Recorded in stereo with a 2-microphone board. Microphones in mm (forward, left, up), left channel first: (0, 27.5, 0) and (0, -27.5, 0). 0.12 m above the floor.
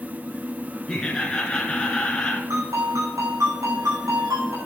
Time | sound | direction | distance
0.9 | laughter | 15° left (ahead or behind) | 2.0 m
2.5 | a ringtone | 80° right | 5.5 m